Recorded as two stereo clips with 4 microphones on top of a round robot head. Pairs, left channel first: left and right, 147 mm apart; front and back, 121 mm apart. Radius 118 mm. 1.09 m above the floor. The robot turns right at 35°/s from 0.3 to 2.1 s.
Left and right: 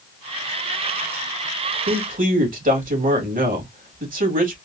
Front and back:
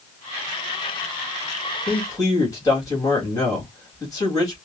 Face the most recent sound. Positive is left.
turn(degrees=-65)